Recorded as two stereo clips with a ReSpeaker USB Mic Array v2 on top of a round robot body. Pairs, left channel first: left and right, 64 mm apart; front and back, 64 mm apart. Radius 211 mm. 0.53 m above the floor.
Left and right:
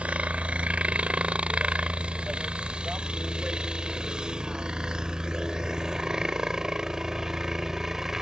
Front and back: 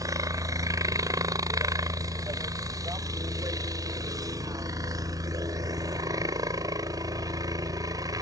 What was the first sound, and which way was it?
A helicopter, 160° right.